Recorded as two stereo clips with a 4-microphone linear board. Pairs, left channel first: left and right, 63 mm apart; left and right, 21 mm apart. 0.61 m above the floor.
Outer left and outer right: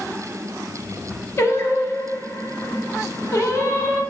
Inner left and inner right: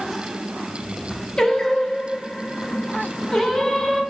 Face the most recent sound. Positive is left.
turn(degrees=40)  # may be behind; listen again after turning